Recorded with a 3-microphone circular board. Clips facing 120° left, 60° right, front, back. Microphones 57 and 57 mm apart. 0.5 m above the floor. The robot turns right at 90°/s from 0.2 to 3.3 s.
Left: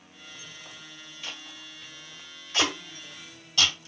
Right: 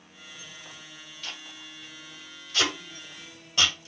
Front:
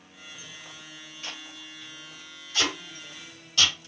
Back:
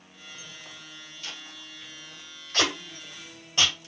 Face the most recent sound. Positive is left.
turn(degrees=-125)